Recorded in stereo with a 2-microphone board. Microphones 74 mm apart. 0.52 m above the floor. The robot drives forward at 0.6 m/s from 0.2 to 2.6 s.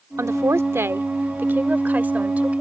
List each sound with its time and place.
0.2 s a woman speaking: 45° right (ahead or behind); by 2.6 s 20° right (ahead or behind)